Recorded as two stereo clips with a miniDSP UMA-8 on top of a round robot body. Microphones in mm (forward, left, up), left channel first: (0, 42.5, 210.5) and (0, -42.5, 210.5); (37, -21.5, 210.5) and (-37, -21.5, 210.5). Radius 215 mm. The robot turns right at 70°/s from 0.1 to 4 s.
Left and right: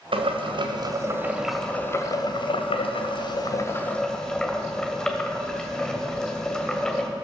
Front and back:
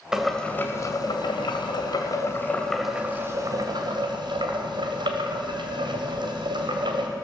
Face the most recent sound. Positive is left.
turn(degrees=175)